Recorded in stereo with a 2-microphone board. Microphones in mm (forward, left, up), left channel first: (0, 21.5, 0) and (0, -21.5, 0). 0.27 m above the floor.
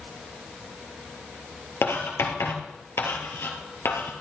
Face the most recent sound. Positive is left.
turn(degrees=80)